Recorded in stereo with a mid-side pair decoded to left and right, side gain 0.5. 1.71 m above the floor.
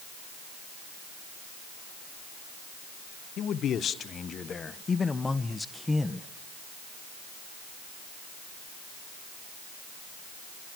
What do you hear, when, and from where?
3.4 s a man speaking: 60° left, 1.8 m; by 6.3 s straight ahead, 1.8 m